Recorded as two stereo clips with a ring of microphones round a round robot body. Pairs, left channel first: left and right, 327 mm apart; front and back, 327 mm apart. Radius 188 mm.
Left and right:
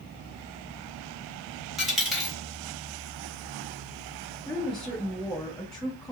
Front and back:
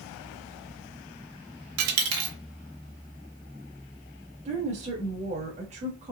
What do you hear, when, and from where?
1.8 s a dropped coin: straight behind, 0.9 m
4.5 s a woman speaking: 175° left, 1.2 m